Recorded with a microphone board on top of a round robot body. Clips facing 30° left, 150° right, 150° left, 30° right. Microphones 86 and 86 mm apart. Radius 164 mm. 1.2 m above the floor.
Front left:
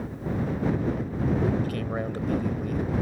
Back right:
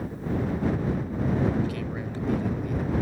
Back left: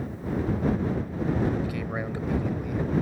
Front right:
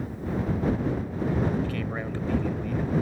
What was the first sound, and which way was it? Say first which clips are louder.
A man speaking: front left 2 dB, even; 70° left.